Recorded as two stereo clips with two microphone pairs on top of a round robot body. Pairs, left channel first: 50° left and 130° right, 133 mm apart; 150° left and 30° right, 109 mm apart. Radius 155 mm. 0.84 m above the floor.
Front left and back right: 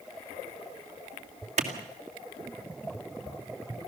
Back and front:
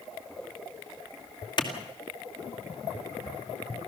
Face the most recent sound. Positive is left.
turn(degrees=-165)